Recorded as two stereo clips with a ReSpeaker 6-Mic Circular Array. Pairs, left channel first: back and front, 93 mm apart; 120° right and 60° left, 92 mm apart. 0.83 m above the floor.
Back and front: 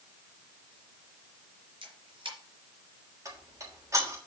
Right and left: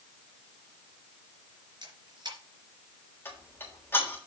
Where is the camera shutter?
20° left, 3.5 m.